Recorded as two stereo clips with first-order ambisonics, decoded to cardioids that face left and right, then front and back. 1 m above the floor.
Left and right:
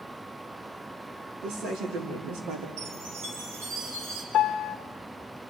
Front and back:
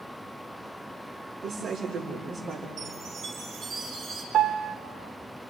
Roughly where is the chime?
Right.